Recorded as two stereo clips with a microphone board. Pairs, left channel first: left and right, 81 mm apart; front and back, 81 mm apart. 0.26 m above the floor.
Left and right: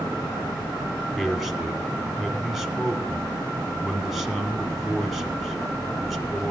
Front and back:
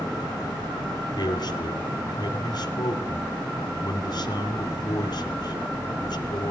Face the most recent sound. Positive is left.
turn(degrees=0)